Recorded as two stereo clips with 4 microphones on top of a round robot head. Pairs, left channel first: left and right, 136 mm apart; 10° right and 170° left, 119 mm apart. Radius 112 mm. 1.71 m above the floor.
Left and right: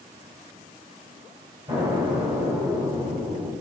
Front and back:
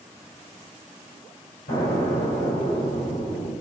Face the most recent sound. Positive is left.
turn(degrees=-25)